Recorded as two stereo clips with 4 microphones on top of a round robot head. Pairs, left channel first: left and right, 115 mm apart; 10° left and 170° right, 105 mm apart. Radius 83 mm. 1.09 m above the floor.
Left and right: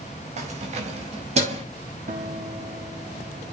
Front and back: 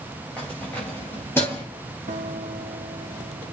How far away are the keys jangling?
About 3.5 m.